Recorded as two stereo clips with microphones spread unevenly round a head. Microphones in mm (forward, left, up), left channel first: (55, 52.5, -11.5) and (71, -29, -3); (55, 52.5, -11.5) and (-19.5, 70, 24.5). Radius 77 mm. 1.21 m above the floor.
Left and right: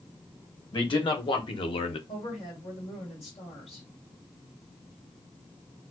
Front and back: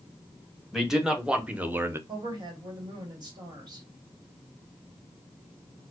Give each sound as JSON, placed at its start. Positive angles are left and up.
{"t": 0.7, "sound": "a man speaking", "azimuth_deg": 75, "distance_m": 1.4}
{"t": 2.1, "sound": "a woman speaking", "azimuth_deg": 135, "distance_m": 1.6}